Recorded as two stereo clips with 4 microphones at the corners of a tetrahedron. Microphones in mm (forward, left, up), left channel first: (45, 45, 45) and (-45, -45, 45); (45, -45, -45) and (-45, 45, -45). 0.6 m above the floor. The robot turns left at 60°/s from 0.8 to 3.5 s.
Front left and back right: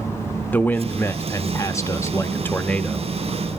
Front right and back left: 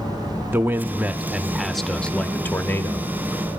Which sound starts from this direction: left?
A man speaking, at 0.5 s.